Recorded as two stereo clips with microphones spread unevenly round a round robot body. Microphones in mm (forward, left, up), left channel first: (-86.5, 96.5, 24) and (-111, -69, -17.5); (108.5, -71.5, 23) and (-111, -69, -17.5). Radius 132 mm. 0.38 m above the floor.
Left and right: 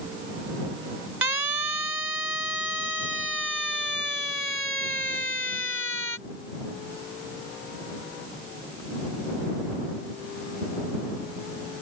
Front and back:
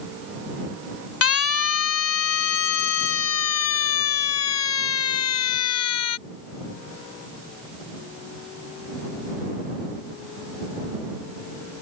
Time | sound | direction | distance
1.2 | a siren | 15° right | ?